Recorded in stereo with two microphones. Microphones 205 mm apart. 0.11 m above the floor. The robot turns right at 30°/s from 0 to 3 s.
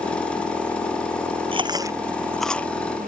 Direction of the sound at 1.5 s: 25° right (ahead or behind).